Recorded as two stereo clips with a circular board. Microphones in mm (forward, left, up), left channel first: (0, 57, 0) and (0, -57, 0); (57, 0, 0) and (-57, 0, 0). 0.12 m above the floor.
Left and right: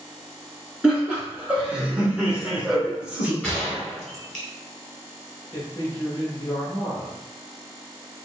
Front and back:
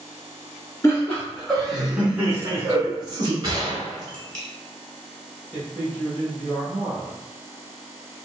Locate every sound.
0.8 s laughter: 20° right, 1.1 m; by 3.3 s 165° right, 1.4 m
3.4 s a gunshot: 165° left, 1.5 m
5.5 s a man speaking: 60° left, 1.3 m